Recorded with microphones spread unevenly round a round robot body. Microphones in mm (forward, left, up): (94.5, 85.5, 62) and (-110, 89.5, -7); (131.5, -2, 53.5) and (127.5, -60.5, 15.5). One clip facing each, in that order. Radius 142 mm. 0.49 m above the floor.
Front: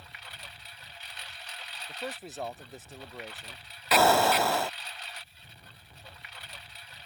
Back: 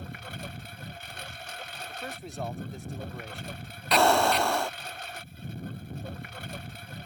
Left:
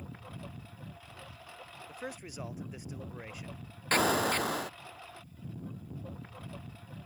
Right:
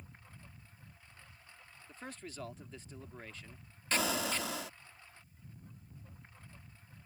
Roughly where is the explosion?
Behind left.